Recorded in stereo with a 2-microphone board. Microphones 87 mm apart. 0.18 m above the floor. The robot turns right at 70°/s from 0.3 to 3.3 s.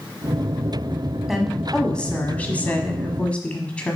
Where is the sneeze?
I don't hear a sneeze.